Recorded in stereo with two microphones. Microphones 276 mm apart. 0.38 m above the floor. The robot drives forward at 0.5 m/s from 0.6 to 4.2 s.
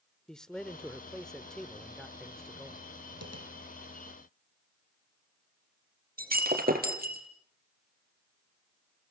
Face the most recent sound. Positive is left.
turn(degrees=-35)  # may be behind; listen again after turning